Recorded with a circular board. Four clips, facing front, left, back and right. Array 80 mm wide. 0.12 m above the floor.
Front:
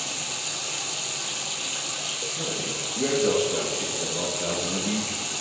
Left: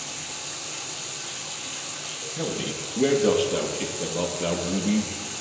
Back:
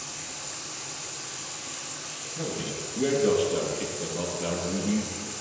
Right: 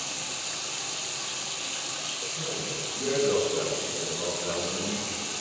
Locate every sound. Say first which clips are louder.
0.0 s running water: even, front 5 dB; 5° right, 1.5 m
2.4 s a man speaking: left 6 dB, back 1 dB; 85° left, 2.5 m